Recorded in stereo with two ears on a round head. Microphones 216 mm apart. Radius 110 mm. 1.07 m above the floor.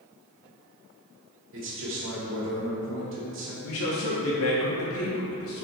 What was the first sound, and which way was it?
A man speaking, 65° right (ahead or behind).